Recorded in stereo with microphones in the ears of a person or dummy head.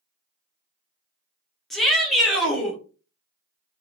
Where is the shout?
Centre (ahead or behind), 1.1 m.